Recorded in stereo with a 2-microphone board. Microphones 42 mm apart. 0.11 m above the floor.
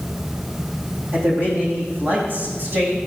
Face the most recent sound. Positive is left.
turn(degrees=-55)  # may be behind; listen again after turning